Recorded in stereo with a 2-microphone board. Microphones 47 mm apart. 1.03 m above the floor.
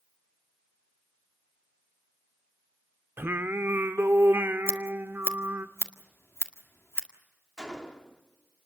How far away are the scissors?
About 1.8 m.